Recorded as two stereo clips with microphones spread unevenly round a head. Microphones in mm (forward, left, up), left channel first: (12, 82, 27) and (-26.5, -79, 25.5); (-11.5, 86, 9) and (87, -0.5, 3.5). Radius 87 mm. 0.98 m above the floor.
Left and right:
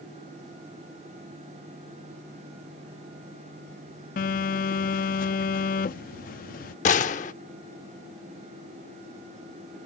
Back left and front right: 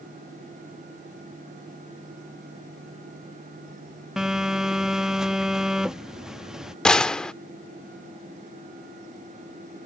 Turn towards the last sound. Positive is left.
turn(degrees=60)